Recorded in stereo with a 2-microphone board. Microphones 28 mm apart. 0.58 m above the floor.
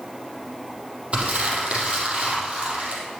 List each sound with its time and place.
1.1 s crumpling: 40° right (ahead or behind), 5 m